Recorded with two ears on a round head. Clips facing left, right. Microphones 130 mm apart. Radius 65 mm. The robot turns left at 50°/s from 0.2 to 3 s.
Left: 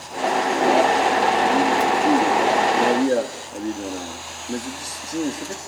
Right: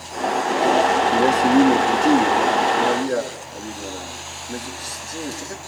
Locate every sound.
1.1 s a man speaking: 115° right, 1.8 m; by 5.6 s 150° left, 1.8 m